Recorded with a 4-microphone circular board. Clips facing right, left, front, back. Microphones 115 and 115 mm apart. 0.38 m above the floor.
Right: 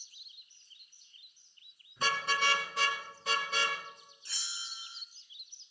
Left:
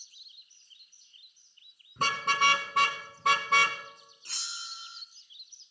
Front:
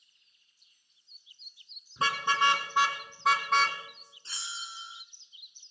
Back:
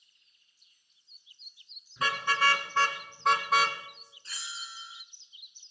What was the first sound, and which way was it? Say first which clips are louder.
A car horn: left 4 dB, front 1 dB; 60° left.